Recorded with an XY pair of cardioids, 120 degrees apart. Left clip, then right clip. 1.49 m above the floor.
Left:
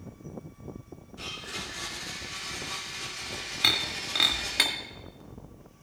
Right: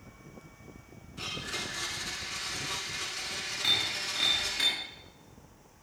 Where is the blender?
25° right, 4.5 m.